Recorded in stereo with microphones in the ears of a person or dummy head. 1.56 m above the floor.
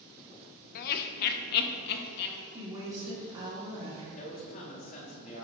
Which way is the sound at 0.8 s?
55° left (ahead or behind).